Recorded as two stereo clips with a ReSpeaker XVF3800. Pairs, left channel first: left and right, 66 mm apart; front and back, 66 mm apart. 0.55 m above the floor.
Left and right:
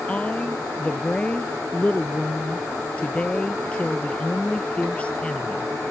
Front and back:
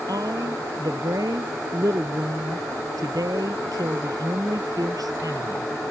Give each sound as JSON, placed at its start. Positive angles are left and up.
{"t": 0.1, "sound": "a woman speaking", "azimuth_deg": 160}